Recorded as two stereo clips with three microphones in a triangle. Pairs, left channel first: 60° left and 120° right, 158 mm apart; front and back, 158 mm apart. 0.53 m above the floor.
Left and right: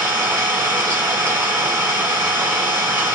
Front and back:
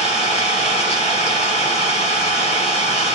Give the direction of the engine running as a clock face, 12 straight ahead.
2 o'clock.